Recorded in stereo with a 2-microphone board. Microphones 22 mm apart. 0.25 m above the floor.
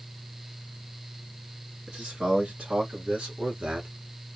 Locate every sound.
1.9 s a man speaking: 65° right (ahead or behind), 3 m